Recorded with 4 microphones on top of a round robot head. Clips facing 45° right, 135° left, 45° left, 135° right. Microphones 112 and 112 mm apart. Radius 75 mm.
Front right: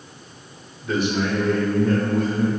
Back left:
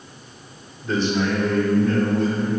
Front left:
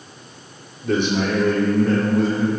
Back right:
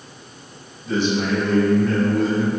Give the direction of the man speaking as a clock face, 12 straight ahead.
11 o'clock.